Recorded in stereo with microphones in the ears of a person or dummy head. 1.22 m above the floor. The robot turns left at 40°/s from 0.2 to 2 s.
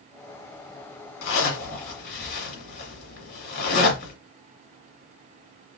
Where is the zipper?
60° left (ahead or behind), 2 m; by 4.1 s 55° left (ahead or behind), 2 m.